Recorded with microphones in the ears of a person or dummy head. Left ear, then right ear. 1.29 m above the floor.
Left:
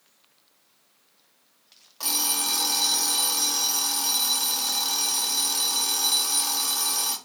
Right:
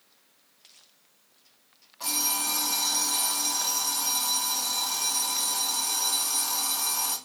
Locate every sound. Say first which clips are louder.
2.0 s an alarm clock: left 2 dB; 35° left (ahead or behind), 1.3 m